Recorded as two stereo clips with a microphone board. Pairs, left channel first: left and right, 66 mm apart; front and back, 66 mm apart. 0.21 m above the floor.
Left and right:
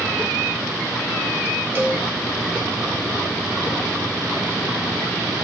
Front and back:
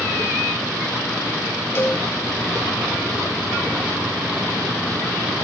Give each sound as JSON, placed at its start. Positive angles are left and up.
{"t": 1.8, "sound": "a cowbell", "azimuth_deg": -45, "distance_m": 1.7}